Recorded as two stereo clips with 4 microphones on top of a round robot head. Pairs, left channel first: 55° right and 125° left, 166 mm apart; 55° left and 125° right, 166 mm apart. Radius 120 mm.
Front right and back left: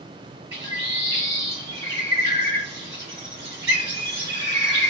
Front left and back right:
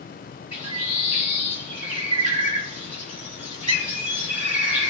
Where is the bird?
150° left, 3 m.